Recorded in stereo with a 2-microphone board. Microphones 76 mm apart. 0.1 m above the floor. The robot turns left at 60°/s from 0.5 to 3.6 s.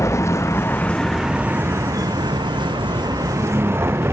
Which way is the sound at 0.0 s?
35° left.